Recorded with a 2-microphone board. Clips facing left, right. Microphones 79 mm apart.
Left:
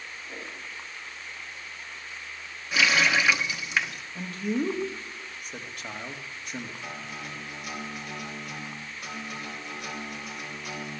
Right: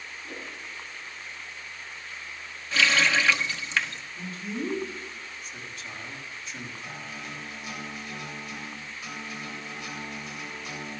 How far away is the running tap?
About 0.9 m.